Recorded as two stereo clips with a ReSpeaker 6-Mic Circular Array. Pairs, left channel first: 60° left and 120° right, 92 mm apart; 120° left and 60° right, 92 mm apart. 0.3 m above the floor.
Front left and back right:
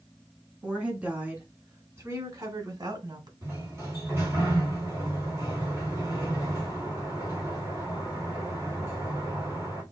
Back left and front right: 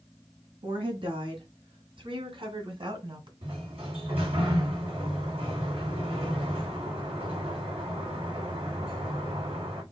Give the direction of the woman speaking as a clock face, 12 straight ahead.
1 o'clock.